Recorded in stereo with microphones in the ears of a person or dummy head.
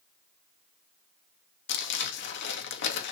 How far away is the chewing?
No chewing in this recording.